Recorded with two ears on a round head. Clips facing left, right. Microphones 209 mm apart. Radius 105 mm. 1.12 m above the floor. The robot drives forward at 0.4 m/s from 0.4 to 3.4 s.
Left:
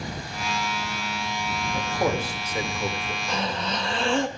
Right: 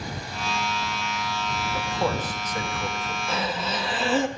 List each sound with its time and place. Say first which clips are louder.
1.7 s a man speaking: left 2 dB; 10° left (ahead or behind), 1.7 m
3.3 s breathing: even; 5° right (ahead or behind), 1.2 m